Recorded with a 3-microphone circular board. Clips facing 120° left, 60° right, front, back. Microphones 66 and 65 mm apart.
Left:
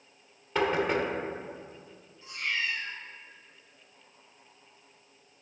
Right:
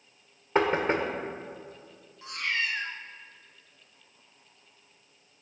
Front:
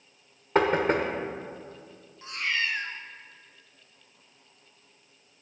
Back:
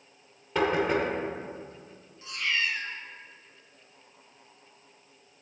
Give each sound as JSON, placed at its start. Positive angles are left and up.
{"t": 0.6, "sound": "knocking", "azimuth_deg": -15, "distance_m": 1.2}
{"t": 2.2, "sound": "a cat meowing", "azimuth_deg": -50, "distance_m": 1.1}